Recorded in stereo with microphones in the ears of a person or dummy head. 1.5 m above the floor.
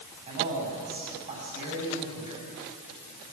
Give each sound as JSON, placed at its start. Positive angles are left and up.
{"t": 0.3, "sound": "a man speaking", "side_deg": -40, "distance_m": 8.5}